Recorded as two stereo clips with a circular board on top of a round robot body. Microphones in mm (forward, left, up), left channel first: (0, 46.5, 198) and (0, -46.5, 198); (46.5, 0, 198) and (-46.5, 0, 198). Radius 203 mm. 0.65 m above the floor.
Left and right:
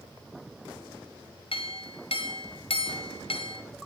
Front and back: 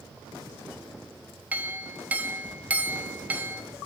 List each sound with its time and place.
1.5 s a clink: 105° left, 1.3 m